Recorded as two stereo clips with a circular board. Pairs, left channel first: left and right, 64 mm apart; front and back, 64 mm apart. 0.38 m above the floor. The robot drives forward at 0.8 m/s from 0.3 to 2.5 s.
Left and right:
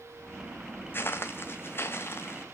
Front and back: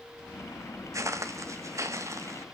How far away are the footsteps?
About 1.1 m.